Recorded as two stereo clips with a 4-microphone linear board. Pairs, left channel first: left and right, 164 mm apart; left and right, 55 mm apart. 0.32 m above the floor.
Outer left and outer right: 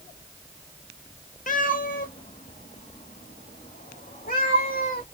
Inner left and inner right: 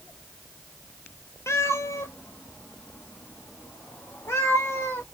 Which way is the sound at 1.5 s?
55° left (ahead or behind).